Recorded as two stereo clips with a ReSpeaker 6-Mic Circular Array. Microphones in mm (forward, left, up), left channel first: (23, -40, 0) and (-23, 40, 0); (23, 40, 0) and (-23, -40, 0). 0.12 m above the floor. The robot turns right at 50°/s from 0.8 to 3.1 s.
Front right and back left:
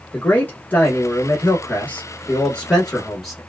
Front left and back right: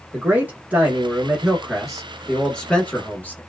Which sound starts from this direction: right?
A man speaking, at 0.1 s.